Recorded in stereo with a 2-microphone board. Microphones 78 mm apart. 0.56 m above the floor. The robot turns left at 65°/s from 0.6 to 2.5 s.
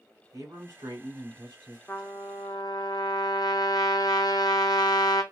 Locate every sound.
0.3 s a man speaking: 50° right, 1.9 m; by 1.8 s 125° right, 1.9 m
1.9 s a trumpet: 150° left, 0.8 m; by 5.2 s 110° left, 0.8 m